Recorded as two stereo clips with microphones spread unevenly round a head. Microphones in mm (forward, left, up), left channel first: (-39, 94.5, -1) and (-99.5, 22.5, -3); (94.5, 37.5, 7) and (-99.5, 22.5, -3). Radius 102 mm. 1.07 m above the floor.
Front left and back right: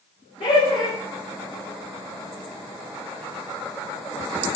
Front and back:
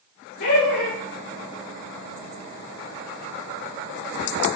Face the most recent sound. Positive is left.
turn(degrees=5)